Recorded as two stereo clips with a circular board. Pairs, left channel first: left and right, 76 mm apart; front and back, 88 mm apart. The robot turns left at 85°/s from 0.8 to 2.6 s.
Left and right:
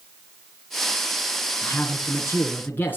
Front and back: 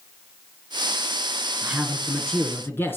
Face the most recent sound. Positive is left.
turn(degrees=45)